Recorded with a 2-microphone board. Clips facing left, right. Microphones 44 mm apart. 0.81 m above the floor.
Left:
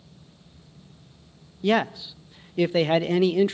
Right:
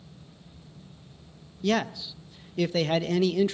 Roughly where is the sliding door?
No sliding door in this recording.